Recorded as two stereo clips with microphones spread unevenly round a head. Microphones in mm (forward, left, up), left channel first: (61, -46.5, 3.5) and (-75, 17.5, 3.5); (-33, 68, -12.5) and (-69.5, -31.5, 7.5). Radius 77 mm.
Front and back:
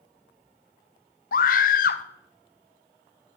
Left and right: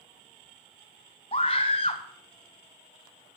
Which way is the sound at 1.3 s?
10° left.